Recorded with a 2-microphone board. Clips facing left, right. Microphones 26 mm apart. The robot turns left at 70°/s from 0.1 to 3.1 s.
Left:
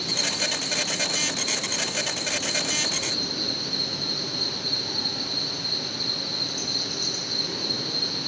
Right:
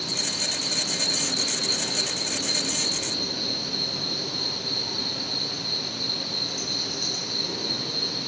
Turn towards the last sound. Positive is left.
turn(degrees=165)